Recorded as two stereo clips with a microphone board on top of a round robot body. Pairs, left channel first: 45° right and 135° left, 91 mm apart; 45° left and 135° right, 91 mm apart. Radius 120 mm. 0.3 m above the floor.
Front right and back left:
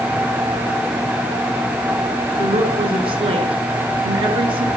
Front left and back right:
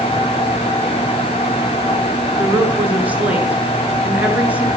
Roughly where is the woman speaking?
Behind left.